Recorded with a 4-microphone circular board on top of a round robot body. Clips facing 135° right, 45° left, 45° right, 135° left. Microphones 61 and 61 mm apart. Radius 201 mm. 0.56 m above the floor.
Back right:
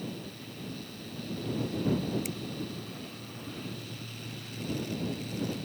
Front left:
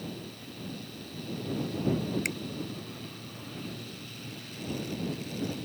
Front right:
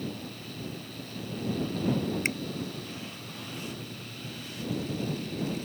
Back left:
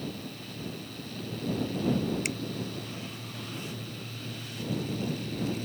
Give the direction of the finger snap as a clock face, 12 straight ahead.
12 o'clock.